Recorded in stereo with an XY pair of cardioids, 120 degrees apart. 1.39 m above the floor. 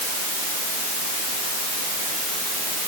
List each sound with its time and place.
Only background noise.